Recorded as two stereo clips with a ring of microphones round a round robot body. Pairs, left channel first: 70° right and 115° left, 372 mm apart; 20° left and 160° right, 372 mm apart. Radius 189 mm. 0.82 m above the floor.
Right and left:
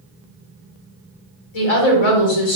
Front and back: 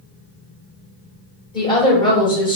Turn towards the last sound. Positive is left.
turn(degrees=-55)